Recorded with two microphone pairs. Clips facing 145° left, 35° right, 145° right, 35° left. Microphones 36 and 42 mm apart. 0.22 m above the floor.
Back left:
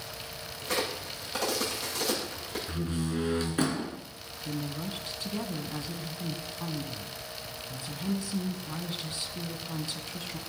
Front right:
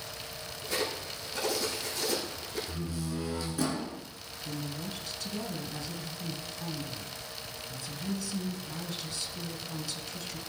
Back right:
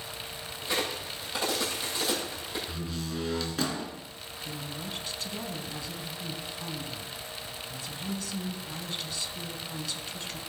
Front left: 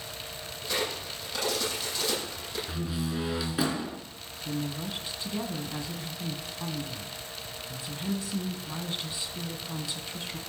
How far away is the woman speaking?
About 2 m.